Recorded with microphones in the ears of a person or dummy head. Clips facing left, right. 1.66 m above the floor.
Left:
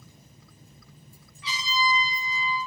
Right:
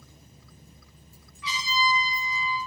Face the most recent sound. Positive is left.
turn(degrees=25)  # may be behind; listen again after turning